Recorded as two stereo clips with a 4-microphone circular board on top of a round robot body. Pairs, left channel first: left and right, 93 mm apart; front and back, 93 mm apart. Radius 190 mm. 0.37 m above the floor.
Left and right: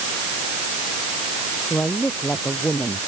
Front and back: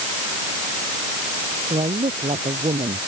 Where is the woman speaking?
170° left.